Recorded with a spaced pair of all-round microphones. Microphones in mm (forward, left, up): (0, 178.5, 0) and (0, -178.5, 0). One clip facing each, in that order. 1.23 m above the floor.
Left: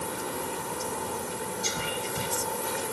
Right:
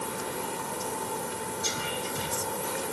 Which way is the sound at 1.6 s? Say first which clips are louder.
Left 1 dB; 35° left (ahead or behind).